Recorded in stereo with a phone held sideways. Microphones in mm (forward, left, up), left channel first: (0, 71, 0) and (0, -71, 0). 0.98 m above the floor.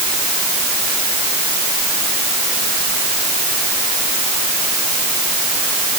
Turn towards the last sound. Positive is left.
No sound to turn to.